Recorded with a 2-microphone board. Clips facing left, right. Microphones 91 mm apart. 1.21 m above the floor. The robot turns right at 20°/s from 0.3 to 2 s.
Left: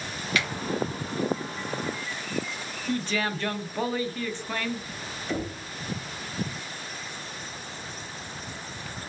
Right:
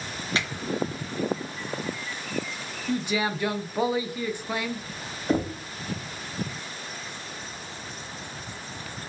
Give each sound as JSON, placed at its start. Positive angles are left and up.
{"t": 0.3, "sound": "a finger snap", "side_deg": -30, "distance_m": 1.2}
{"t": 2.9, "sound": "a man speaking", "side_deg": -15, "distance_m": 0.6}
{"t": 5.3, "sound": "knocking", "side_deg": -45, "distance_m": 0.8}